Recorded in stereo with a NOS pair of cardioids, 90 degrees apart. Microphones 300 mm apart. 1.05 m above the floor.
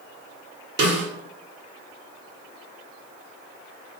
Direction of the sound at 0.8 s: 40° right.